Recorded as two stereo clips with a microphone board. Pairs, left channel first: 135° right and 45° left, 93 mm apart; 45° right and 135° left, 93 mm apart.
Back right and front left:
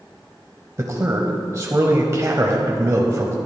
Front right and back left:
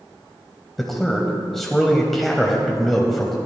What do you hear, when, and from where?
0.8 s a man speaking: 40° left, 1.1 m